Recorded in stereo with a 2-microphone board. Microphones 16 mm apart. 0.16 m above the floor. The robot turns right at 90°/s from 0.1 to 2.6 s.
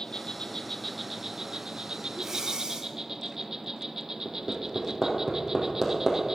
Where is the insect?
95° left, 0.9 m; by 6.4 s 40° right, 0.9 m.